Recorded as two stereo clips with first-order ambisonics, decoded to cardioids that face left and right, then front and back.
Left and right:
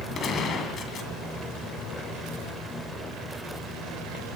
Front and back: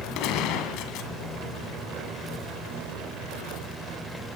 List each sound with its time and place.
0.1 s a gunshot: 30° left, 2 m